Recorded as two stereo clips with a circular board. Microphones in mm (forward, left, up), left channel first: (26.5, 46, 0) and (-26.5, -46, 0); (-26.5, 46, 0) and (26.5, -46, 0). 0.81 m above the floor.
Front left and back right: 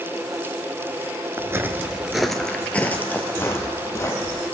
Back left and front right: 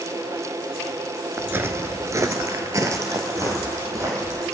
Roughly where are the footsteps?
Right.